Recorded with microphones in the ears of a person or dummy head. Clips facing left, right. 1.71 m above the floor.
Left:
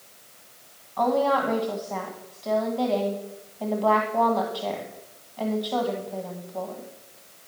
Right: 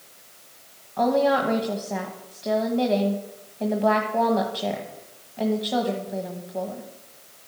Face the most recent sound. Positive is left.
turn(degrees=-20)  # may be behind; listen again after turning